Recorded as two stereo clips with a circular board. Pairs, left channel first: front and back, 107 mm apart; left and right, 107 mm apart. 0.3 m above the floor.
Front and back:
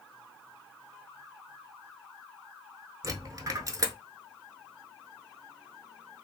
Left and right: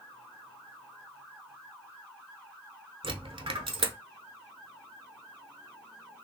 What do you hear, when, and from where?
3.0 s a dropped coin: 125° right, 0.6 m